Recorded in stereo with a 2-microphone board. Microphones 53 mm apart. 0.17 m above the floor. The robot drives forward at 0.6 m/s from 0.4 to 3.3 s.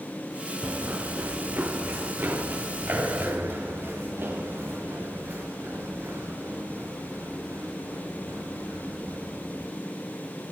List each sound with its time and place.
0.6 s running footsteps: 30° right (ahead or behind), 0.6 m; by 9.6 s 65° right (ahead or behind), 8 m